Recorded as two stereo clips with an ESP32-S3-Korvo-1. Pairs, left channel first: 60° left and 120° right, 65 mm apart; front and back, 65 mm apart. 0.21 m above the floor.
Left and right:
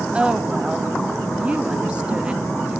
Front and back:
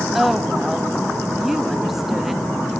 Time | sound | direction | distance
0.1 | a woman speaking | 105° right | 0.9 m